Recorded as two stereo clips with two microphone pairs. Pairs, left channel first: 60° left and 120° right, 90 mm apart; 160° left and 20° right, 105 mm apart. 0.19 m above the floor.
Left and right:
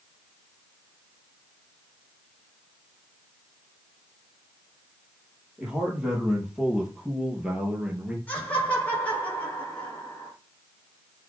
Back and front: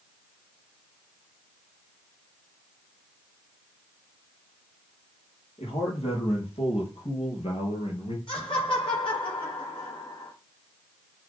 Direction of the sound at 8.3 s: 130° left.